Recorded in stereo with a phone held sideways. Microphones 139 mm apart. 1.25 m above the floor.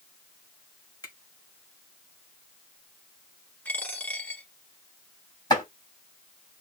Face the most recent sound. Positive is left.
turn(degrees=30)  # may be behind; listen again after turning